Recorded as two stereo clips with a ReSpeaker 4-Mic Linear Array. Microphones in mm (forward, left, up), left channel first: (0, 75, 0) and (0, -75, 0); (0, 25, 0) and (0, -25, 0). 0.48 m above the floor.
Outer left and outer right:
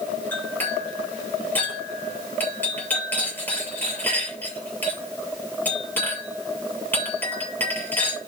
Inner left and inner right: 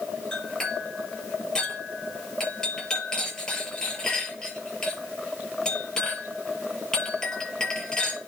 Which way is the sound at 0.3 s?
15° left (ahead or behind).